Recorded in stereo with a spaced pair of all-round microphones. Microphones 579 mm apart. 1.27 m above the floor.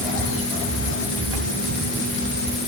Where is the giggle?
No giggle in this recording.